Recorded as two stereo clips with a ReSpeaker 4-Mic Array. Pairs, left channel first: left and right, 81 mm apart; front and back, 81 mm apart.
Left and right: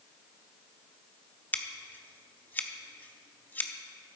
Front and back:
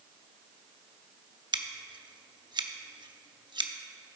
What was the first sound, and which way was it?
Scissors, 160° left.